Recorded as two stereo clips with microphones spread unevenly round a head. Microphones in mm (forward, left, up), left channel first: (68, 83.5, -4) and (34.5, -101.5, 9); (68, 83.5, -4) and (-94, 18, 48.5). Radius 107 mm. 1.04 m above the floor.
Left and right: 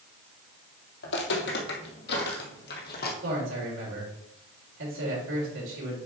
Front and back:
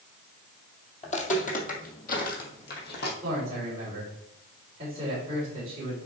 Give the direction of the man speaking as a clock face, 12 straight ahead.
3 o'clock.